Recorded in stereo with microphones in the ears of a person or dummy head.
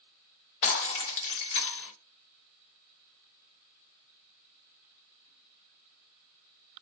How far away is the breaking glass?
About 0.9 m.